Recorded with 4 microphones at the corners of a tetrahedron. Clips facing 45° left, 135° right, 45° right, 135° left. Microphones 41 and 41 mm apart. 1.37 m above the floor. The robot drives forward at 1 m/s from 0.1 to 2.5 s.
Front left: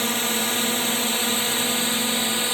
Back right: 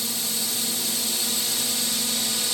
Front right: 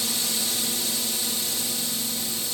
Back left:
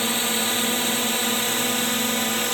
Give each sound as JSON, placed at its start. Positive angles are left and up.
{"t": 0.0, "sound": "a drone", "azimuth_deg": 85}